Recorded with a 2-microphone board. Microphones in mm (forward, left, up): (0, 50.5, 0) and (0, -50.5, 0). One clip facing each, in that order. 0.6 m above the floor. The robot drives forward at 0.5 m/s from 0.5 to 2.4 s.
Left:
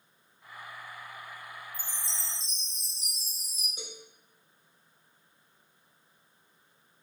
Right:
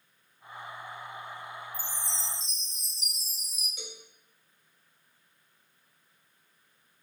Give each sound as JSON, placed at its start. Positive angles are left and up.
{"t": 1.7, "sound": "a chime", "side_deg": 40, "distance_m": 0.9}
{"t": 3.8, "sound": "a cowbell", "side_deg": 35, "distance_m": 0.8}